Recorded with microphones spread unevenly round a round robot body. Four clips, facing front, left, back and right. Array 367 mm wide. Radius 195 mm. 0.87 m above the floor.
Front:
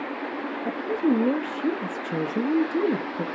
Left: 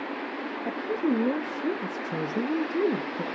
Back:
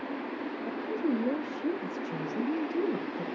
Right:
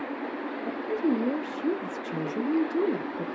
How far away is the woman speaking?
About 1.6 m.